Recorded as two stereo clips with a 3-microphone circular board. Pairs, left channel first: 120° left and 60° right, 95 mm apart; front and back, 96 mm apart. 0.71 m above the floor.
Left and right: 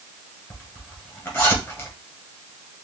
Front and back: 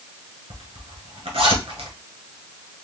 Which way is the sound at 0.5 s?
170° right.